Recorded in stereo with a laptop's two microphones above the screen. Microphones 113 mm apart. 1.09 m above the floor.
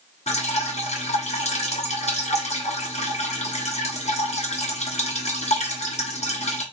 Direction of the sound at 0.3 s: 75° left (ahead or behind).